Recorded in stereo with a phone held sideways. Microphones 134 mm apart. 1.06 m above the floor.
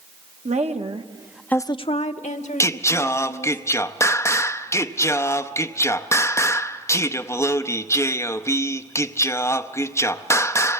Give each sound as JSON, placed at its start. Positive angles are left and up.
{"t": 0.5, "sound": "a woman speaking", "side_deg": -60, "distance_m": 1.3}
{"t": 2.6, "sound": "singing", "side_deg": 20, "distance_m": 0.6}